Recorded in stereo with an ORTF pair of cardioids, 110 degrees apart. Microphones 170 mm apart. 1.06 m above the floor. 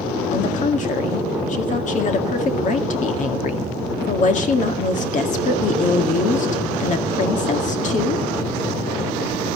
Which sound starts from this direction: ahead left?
A woman speaking, at 0.3 s.